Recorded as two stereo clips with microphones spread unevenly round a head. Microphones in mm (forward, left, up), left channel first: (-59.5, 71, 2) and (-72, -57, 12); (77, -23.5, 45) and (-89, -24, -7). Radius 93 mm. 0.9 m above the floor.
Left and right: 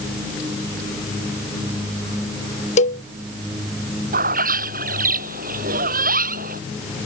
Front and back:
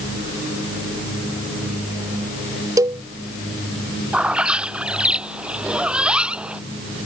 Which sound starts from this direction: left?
A cowbell, at 2.8 s.